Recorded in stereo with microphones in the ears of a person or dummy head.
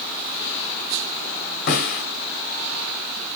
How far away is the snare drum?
About 2.0 m.